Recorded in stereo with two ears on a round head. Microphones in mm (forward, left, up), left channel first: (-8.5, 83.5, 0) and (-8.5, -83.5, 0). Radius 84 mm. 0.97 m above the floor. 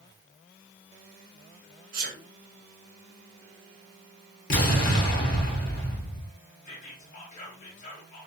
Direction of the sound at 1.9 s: 45° right (ahead or behind).